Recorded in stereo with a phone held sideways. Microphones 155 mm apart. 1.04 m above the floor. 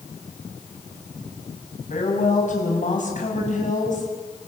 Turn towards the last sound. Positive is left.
turn(degrees=50)  # may be behind; listen again after turning